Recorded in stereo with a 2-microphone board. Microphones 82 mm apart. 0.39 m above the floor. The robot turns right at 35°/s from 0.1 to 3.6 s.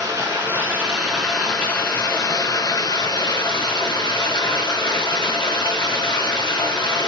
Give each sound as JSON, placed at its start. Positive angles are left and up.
{"t": 0.0, "sound": "running water", "azimuth_deg": -40, "distance_m": 4.0}